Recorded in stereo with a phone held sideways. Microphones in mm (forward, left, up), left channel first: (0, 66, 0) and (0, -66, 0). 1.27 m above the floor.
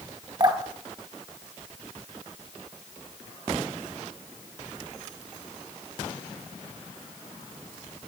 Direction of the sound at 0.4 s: 30° right (ahead or behind).